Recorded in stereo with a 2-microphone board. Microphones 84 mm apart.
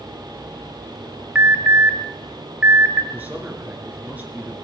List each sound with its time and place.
1.4 s an alarm: 20° right (ahead or behind), 2 m
3.1 s a man speaking: 20° right (ahead or behind), 4 m